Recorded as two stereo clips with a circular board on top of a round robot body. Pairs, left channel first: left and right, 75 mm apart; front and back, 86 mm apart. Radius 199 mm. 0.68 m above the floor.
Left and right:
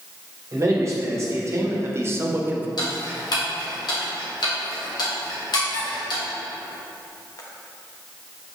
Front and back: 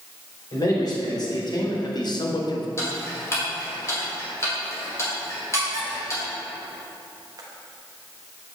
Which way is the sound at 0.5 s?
40° right.